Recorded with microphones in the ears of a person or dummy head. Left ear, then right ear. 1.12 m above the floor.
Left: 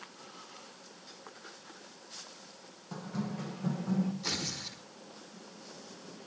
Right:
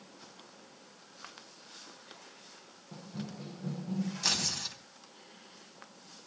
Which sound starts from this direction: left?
Running footsteps, at 2.9 s.